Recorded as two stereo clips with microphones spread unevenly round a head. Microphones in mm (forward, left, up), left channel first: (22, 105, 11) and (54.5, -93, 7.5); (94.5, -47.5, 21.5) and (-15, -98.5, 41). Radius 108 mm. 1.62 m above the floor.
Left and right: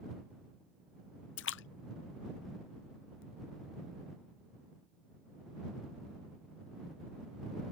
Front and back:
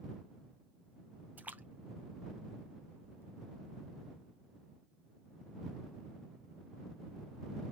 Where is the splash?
130° left.